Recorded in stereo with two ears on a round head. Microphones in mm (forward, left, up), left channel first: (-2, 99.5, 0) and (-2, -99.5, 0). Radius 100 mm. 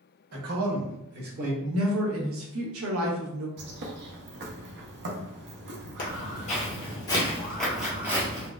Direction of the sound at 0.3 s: 80° right.